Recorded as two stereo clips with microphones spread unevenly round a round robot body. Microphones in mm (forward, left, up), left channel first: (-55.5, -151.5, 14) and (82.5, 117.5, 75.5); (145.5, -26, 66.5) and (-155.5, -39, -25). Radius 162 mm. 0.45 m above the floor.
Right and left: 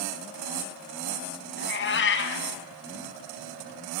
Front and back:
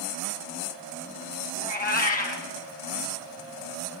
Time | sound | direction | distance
1.6 | a cat meowing | 60° right | 1.3 m